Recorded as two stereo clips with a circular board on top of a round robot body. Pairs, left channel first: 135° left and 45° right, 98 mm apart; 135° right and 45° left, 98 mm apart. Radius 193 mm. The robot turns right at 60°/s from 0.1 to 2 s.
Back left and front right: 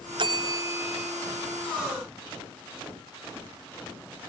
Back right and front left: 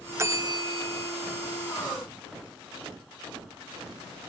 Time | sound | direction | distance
0.2 | a bell | 15° right | 0.6 m